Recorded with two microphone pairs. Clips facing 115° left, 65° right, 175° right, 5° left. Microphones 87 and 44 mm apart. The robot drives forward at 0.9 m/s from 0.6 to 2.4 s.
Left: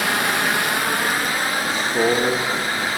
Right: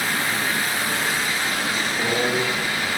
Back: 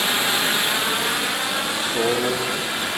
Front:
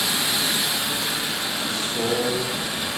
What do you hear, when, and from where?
0.0 s running water: 135° left, 0.9 m; by 3.0 s 165° left, 2.5 m
1.6 s a man speaking: 120° left, 1.6 m; by 2.9 s 135° left, 2 m